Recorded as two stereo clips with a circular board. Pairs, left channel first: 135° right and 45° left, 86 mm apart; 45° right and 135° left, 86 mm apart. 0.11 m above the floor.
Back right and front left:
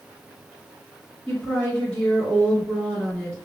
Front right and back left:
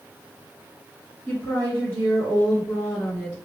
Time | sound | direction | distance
1.3 | a woman speaking | 80° right | 1.4 m